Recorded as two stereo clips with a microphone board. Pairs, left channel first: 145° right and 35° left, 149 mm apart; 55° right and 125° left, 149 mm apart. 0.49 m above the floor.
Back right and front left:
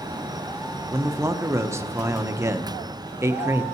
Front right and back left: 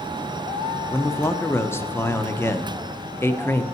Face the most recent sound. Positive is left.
turn(degrees=-5)